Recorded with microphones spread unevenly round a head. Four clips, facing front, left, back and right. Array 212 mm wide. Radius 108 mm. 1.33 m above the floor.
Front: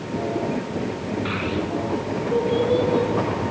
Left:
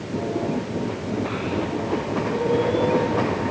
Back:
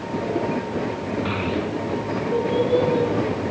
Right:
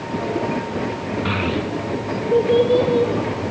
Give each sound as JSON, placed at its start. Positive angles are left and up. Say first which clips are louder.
{"t": 1.2, "sound": "a child speaking", "louder": "right 3 dB, back 1 dB", "azimuth_deg": -95, "distance_m": 1.6}